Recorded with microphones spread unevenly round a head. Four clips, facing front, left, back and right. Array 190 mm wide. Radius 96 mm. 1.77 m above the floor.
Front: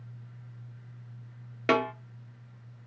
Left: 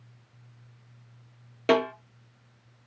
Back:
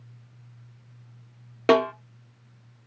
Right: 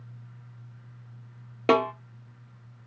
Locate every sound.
1.7 s a snare drum: 155° right, 1.0 m